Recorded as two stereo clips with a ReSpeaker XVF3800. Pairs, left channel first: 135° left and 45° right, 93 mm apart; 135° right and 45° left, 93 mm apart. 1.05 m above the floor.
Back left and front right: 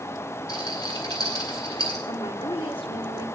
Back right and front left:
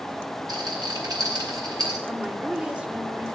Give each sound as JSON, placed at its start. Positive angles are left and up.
{"t": 0.5, "sound": "a rattle", "azimuth_deg": 95, "distance_m": 7.5}
{"t": 2.1, "sound": "a woman speaking", "azimuth_deg": 125, "distance_m": 2.0}